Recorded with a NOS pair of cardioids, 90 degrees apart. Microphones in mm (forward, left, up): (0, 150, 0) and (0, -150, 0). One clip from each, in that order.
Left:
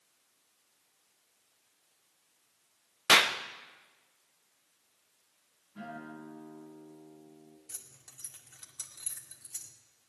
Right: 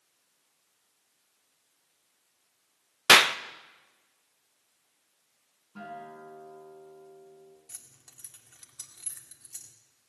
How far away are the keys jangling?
About 2 m.